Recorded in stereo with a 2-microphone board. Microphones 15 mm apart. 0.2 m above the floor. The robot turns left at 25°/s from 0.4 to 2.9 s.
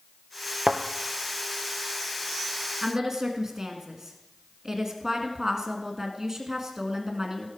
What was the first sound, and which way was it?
A thud, 75° right (ahead or behind).